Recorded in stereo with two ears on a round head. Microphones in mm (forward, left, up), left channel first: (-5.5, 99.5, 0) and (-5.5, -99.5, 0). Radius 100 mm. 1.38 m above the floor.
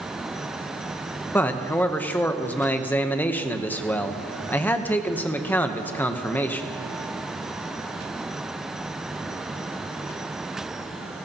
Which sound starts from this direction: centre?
A man speaking, at 1.3 s.